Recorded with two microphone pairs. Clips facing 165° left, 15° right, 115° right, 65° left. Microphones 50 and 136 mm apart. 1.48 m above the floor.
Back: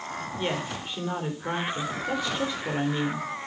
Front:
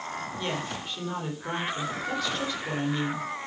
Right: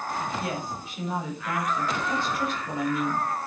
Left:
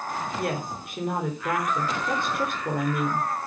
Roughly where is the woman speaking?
Left.